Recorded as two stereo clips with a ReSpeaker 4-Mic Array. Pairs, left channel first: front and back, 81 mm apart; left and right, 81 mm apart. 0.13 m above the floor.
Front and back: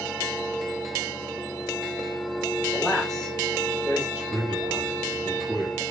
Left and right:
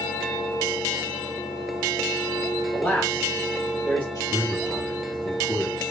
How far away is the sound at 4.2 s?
About 2 m.